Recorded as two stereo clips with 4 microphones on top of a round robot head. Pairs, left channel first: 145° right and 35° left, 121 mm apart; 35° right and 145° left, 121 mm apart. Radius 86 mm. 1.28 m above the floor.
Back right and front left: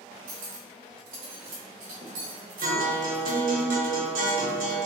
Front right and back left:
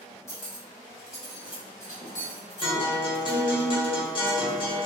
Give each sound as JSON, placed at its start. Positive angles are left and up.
{"t": 0.3, "sound": "cutlery clinking", "azimuth_deg": 30, "distance_m": 0.5}
{"t": 2.6, "sound": "a guitar", "azimuth_deg": 20, "distance_m": 0.8}